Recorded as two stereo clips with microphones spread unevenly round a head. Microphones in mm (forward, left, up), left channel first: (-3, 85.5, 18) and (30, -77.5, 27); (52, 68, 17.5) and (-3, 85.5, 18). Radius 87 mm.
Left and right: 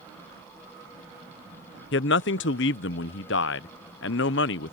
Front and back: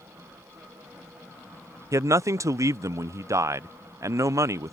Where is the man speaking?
125° left.